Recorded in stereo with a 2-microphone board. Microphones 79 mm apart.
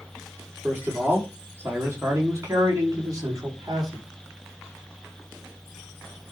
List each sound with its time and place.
0.6 s a man speaking: 25° right (ahead or behind), 4.5 m; by 4.0 s 55° right (ahead or behind), 4.5 m